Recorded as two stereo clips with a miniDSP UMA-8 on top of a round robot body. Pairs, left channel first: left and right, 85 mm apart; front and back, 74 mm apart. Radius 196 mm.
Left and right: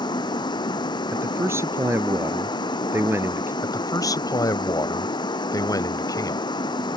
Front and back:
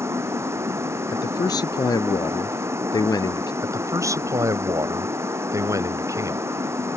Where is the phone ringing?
No phone ringing in this recording.